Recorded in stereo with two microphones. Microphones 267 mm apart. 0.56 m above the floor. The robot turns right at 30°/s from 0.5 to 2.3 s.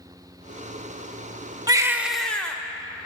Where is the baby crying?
15° right (ahead or behind), 0.7 m; by 2.6 s 5° left (ahead or behind), 0.7 m.